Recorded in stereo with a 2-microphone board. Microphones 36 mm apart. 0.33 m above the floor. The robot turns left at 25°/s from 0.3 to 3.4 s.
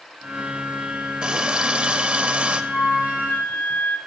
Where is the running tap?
50° right, 0.8 m; by 2.6 s 85° right, 0.8 m.